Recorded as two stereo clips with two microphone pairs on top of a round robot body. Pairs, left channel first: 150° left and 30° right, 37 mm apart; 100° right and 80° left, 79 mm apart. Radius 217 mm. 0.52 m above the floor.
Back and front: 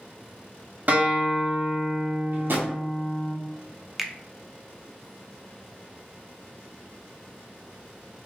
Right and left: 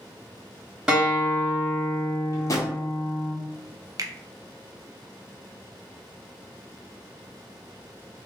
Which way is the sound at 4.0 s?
50° left.